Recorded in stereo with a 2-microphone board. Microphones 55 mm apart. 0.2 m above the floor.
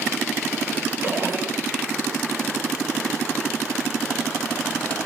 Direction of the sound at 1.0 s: 40° right (ahead or behind).